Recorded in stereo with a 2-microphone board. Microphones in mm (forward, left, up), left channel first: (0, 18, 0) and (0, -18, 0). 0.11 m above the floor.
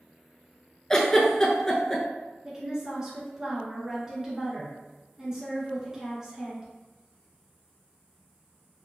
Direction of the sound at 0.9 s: 15° left (ahead or behind).